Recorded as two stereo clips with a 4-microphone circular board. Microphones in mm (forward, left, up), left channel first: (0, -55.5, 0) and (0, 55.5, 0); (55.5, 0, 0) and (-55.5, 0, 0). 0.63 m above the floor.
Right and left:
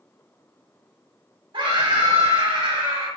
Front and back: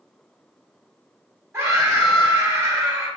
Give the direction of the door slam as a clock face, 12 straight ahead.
No door slam in this recording.